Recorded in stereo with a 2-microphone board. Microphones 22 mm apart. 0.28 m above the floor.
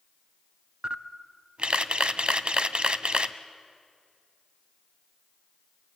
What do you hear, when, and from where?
0.8 s a camera shutter: 50° right (ahead or behind), 0.7 m